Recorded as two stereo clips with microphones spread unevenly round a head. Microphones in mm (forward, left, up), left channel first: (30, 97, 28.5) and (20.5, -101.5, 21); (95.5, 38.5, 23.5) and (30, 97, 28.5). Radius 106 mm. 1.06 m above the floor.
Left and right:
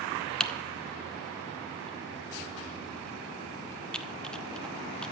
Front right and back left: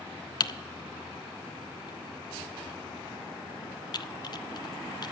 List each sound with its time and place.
0.4 s typing on a keyboard: straight ahead, 0.5 m